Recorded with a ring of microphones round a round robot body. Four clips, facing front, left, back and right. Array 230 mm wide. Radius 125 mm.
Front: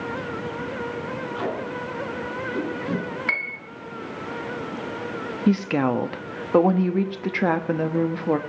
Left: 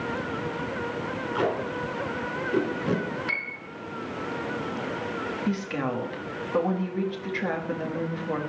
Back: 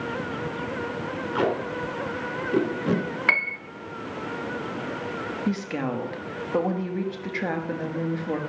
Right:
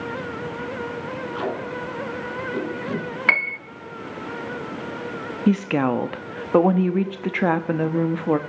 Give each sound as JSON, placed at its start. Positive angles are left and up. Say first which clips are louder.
{"t": 1.4, "sound": "tape being pulled", "louder": "left 2 dB, back 6 dB", "azimuth_deg": 160, "distance_m": 3.5}
{"t": 3.3, "sound": "a piano", "louder": "right 10 dB, back 3 dB", "azimuth_deg": -110, "distance_m": 0.6}
{"t": 5.5, "sound": "a woman speaking", "louder": "right 11 dB, front 8 dB", "azimuth_deg": -60, "distance_m": 1.1}